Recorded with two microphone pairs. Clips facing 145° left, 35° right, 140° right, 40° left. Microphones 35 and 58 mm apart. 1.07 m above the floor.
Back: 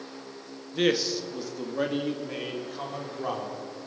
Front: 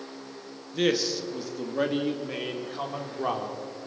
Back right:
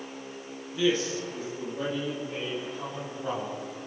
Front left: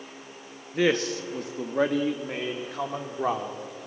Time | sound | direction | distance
0.7 | a man speaking | 70° left | 1.9 m